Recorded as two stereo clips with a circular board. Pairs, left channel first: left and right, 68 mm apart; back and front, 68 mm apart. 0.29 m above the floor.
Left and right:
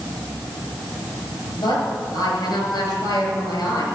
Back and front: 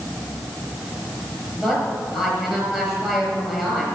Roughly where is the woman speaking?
Left.